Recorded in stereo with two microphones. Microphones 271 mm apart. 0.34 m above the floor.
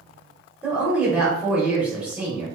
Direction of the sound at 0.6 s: 5° right (ahead or behind).